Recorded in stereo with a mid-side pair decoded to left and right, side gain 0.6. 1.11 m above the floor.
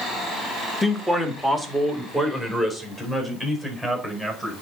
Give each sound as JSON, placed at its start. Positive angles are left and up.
{"t": 0.8, "sound": "a man speaking", "azimuth_deg": 5, "distance_m": 1.4}